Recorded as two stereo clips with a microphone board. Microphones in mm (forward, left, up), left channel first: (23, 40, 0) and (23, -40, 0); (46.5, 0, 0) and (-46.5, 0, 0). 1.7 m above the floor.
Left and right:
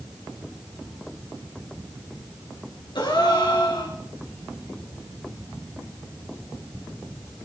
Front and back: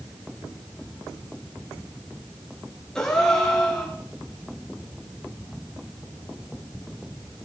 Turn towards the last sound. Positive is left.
turn(degrees=85)